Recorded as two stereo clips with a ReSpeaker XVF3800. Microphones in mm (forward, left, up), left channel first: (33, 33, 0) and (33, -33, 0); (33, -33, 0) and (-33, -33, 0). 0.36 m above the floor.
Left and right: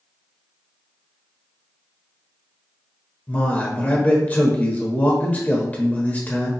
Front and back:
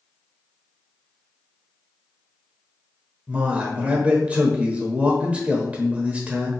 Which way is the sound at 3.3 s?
130° left.